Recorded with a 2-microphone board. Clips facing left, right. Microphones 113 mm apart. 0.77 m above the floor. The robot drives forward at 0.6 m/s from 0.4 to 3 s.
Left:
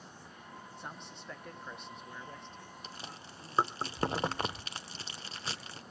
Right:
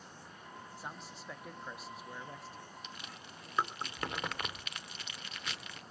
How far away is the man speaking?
About 1.6 m.